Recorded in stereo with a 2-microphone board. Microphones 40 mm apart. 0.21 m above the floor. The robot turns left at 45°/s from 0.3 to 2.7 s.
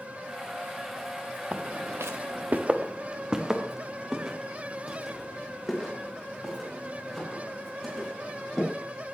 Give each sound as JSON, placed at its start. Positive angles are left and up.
{"t": 1.5, "sound": "footsteps", "side_deg": -30, "distance_m": 1.5}